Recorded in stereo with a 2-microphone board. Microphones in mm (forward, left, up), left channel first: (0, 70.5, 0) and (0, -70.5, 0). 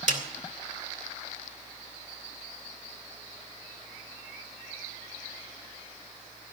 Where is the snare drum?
60° right (ahead or behind), 2 m.